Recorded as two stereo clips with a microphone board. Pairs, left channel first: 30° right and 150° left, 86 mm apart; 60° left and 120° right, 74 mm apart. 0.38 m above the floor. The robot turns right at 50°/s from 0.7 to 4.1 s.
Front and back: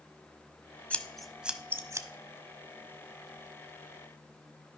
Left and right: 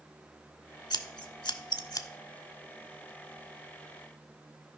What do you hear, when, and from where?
0.9 s scissors: 40° left, 0.7 m; by 2.1 s 100° left, 0.7 m